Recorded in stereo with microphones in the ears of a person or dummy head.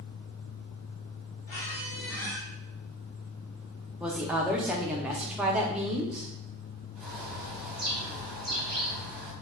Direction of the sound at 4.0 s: 10° right (ahead or behind).